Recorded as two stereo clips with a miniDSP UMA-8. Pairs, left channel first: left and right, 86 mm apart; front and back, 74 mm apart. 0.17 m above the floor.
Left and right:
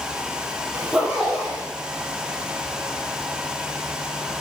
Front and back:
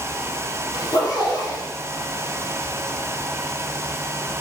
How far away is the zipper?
About 5 m.